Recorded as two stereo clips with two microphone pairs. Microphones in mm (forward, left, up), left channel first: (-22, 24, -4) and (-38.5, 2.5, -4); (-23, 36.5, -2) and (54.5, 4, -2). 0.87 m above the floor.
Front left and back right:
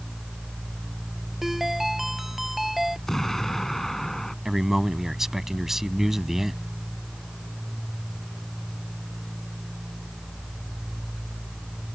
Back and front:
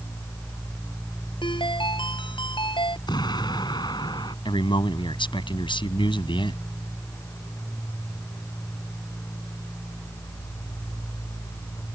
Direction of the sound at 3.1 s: 130° left.